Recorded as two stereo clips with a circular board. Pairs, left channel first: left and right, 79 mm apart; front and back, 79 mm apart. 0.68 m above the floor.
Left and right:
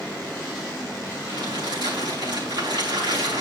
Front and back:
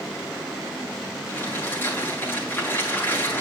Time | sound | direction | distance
1.3 | crumpling | 65° right | 8 m